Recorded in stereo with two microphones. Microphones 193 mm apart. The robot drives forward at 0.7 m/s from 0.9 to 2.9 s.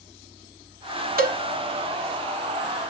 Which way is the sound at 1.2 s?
50° right (ahead or behind).